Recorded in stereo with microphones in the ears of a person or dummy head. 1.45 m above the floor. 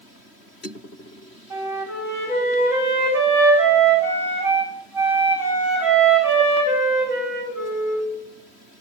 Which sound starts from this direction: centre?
A flute, at 1.5 s.